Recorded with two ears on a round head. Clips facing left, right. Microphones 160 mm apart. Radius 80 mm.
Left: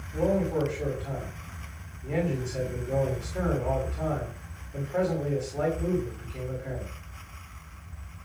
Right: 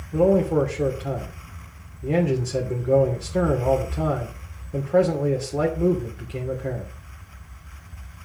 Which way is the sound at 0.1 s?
70° right (ahead or behind).